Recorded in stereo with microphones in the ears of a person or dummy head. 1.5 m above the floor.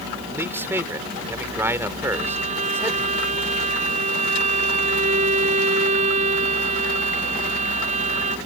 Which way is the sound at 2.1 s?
40° right (ahead or behind).